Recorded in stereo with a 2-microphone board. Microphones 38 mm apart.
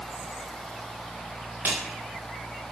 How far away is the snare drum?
About 5 m.